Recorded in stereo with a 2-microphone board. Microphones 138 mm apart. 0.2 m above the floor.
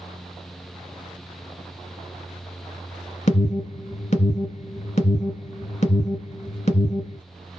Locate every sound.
3.3 s an alarm: 55° left (ahead or behind), 1.5 m